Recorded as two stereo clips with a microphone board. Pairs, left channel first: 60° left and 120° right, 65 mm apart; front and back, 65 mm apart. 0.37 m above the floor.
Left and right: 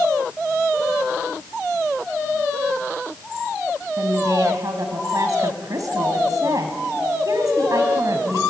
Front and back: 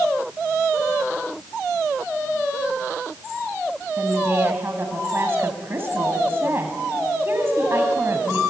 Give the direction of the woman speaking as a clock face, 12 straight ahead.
4 o'clock.